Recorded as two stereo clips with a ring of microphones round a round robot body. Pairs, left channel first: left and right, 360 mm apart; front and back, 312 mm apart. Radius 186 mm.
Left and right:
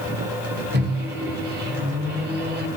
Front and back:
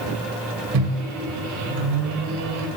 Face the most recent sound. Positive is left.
turn(degrees=-150)